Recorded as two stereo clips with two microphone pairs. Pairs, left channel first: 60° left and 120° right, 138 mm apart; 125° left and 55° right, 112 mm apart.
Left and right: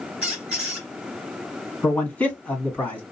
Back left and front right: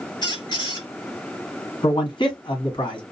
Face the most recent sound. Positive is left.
turn(degrees=130)